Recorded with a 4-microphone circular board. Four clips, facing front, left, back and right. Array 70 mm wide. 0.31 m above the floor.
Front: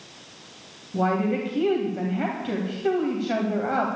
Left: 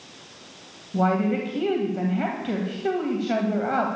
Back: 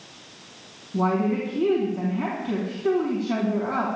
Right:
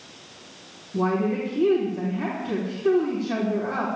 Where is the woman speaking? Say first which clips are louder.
Left 1 dB, even; 55° left, 2 m.